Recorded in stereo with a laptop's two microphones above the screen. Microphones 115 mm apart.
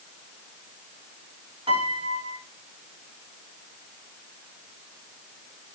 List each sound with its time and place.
1.7 s a piano: 50° right (ahead or behind), 3.5 m